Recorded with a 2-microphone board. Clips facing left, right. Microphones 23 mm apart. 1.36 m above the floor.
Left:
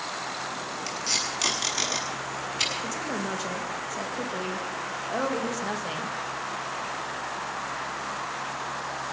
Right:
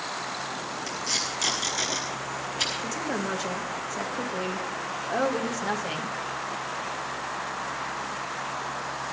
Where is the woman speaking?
5° right (ahead or behind), 1.7 m.